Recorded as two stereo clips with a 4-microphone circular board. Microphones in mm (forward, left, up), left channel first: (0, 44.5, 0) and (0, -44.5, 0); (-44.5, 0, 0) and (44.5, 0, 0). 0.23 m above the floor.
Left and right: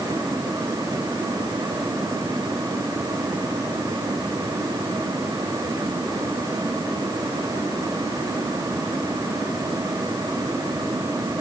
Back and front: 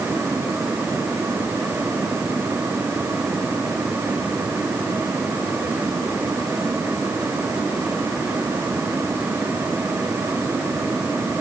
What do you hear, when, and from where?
Only background noise.